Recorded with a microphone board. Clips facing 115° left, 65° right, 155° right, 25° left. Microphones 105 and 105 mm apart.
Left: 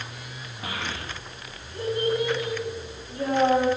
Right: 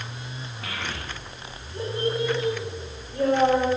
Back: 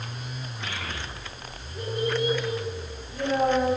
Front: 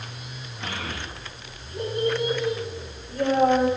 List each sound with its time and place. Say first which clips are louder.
0.6 s a child speaking: left 2 dB, front 4 dB; 55° left, 1.1 m; by 3.7 s 20° right, 4 m